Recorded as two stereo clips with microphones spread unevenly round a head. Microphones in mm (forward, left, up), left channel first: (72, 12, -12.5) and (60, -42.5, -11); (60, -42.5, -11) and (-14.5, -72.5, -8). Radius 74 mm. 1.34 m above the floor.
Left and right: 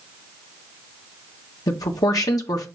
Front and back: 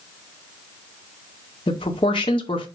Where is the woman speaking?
80° left, 1.5 m.